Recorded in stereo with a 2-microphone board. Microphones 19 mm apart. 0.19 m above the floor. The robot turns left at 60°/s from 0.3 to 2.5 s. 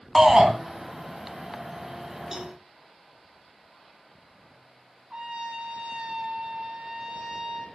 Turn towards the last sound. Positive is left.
turn(degrees=-55)  # may be behind; listen again after turning